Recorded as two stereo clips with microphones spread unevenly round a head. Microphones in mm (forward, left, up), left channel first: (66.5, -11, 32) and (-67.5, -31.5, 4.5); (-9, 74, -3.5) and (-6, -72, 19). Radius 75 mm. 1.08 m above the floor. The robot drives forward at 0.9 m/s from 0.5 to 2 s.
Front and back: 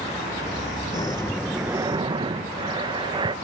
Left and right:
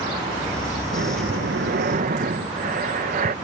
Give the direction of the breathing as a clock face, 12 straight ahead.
2 o'clock.